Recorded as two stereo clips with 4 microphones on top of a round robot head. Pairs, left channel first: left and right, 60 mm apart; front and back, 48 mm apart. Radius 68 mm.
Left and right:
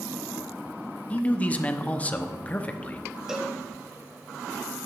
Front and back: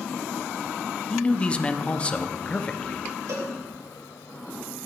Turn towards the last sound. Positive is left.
turn(degrees=-170)